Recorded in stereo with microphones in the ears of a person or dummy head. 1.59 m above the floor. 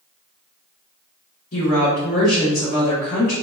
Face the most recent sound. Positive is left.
turn(degrees=45)  # may be behind; listen again after turning